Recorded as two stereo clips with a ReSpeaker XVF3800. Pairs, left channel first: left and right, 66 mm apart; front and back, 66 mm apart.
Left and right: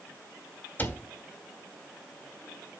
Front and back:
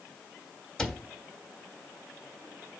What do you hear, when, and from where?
0.8 s a cupboard door: 70° left, 1.1 m